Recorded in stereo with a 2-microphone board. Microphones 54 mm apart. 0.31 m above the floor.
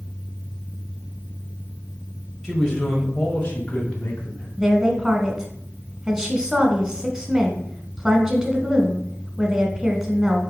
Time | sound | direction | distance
2.4 | a man speaking | 5° right (ahead or behind) | 1.4 m
4.6 | a woman speaking | 15° right (ahead or behind) | 1.4 m